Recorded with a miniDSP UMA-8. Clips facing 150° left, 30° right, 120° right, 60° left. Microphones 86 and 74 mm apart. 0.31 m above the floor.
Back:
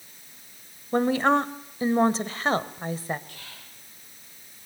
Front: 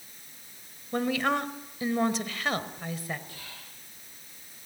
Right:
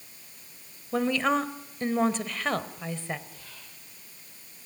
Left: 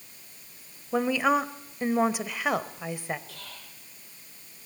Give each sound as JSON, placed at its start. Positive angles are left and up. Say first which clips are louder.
{"t": 0.9, "sound": "a woman speaking", "louder": "back 6 dB, left 1 dB", "azimuth_deg": 130, "distance_m": 1.1}
{"t": 3.3, "sound": "whispering", "louder": "even, left 3 dB", "azimuth_deg": 50, "distance_m": 9.0}